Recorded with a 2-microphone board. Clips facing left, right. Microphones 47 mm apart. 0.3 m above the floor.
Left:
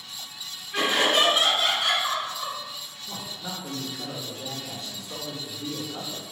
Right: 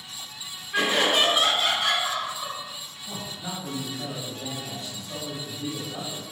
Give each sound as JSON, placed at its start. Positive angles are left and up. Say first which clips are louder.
{"t": 0.7, "sound": "laughter", "louder": "even", "side_deg": -15, "distance_m": 1.6}
{"t": 3.1, "sound": "a man speaking", "louder": "right 1 dB", "side_deg": -15, "distance_m": 1.4}